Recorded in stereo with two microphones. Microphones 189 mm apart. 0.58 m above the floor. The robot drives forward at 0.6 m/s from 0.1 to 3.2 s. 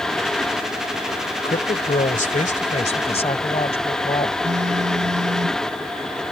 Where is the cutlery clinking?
I don't hear cutlery clinking.